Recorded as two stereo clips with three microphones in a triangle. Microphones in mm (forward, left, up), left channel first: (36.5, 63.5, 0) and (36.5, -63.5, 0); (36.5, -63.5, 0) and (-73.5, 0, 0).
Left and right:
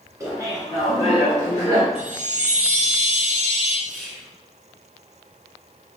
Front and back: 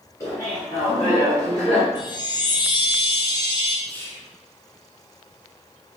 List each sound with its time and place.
0.2 s laughter: 65° right, 1.9 m; by 1.9 s 35° right, 2.5 m
1.9 s a chime: 85° right, 1.0 m
3.9 s whispering: 10° left, 1.3 m